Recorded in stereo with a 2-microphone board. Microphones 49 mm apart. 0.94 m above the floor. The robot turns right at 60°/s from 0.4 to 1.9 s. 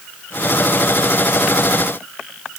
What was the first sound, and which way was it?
Only background noise.